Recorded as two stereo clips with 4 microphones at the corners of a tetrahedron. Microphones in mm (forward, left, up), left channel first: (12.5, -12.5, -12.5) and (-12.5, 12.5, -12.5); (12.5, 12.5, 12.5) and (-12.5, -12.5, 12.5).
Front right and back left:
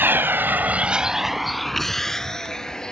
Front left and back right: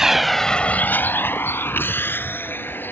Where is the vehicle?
150° left; by 2.9 s 30° left.